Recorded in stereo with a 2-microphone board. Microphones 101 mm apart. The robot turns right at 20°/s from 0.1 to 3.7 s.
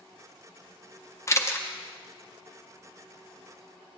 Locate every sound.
1.3 s a camera shutter: 30° left (ahead or behind), 0.5 m; by 1.7 s 25° left (ahead or behind), 0.5 m